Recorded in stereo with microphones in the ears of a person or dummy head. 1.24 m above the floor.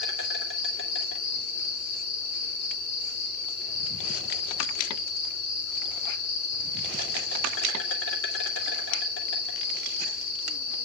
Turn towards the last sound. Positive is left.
turn(degrees=80)